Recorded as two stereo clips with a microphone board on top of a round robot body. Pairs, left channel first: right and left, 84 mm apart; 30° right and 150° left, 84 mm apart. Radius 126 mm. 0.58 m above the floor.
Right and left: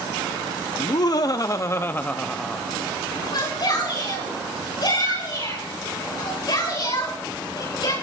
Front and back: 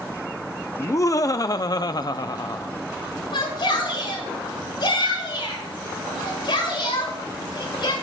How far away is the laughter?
About 1.2 m.